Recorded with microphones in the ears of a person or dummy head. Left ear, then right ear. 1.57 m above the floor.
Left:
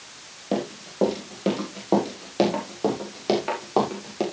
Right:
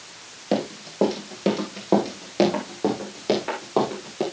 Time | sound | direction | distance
0.5 | running footsteps | 10° right (ahead or behind) | 4.5 m